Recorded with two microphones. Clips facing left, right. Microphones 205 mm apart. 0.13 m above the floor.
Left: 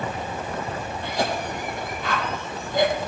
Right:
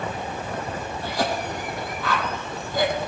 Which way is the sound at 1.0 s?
20° left (ahead or behind).